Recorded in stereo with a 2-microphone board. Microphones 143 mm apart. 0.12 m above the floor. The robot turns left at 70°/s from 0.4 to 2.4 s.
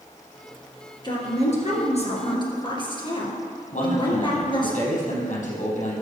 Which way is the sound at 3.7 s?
65° left (ahead or behind).